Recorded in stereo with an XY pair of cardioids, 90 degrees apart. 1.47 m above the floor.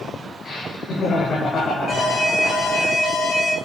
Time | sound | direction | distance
0.4 | laughter | 55° left | 4.5 m
1.9 | an alarm | 60° left | 4.5 m